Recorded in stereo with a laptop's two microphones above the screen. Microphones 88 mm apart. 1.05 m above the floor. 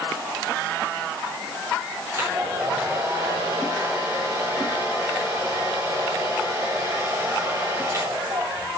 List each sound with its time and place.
2.1 s a hair dryer: 35° right (ahead or behind), 4 m